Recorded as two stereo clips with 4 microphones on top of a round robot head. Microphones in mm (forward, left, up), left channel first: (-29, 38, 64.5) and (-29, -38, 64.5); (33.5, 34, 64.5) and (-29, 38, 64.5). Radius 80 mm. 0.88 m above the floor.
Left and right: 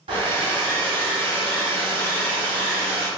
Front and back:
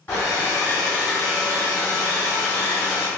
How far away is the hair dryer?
About 1.2 m.